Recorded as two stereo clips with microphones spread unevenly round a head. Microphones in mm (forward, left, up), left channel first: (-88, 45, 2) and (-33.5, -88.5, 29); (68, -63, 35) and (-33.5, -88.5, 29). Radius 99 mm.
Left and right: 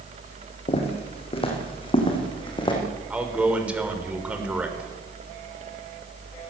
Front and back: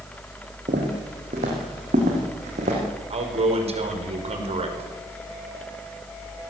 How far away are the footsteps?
About 5 m.